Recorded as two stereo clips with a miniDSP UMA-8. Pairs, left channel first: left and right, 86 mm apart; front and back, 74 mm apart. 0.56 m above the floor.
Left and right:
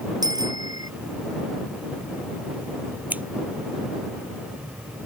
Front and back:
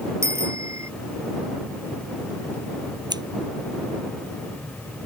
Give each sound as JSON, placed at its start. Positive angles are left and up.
{"t": 0.2, "sound": "a bicycle bell", "azimuth_deg": -130}
{"t": 3.1, "sound": "scissors", "azimuth_deg": -160}